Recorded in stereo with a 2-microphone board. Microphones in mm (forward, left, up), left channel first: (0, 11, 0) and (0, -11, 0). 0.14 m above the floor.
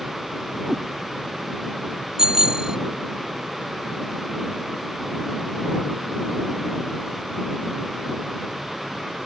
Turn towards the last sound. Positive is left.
turn(degrees=-30)  # may be behind; listen again after turning